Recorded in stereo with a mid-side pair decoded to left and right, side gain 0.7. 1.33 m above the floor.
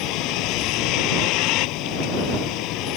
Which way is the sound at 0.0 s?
60° left.